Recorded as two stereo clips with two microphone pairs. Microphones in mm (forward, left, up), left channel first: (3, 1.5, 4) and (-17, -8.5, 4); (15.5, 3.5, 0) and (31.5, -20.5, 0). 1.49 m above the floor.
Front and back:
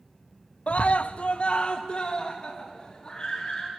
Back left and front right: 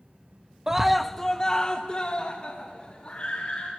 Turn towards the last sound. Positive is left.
turn(degrees=80)